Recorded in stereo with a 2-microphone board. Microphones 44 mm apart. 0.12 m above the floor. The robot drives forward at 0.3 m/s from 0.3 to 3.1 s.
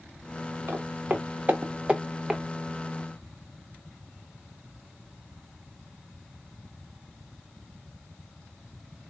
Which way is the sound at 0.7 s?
60° right (ahead or behind).